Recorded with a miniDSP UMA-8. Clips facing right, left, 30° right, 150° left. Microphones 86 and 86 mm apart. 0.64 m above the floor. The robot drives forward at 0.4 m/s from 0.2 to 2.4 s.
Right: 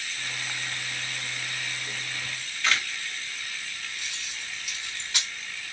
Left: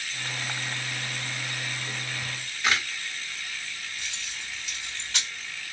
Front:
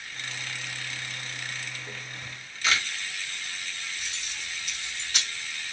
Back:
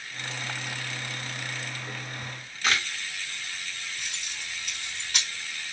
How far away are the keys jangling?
About 3 m.